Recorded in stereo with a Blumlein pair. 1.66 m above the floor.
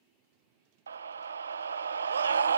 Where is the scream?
70° right, 0.5 m.